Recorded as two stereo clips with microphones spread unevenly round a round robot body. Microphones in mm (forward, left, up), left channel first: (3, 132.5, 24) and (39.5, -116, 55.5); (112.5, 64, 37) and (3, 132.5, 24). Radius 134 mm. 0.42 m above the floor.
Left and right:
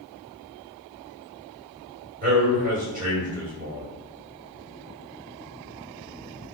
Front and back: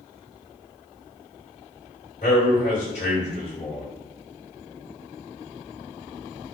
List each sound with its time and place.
2.2 s a man speaking: 25° right, 1.9 m